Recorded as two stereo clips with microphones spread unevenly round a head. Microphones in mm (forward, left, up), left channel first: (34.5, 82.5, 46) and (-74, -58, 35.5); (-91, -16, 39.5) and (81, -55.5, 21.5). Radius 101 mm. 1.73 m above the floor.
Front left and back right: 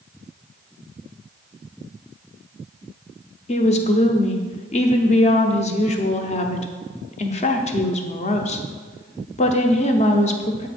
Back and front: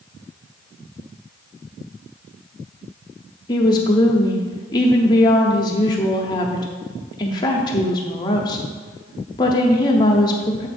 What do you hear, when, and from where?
3.5 s a woman speaking: 100° left, 0.7 m